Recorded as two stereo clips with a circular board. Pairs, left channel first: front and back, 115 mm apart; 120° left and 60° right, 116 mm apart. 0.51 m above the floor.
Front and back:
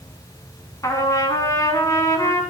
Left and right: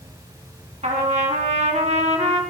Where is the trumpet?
60° right, 3 m.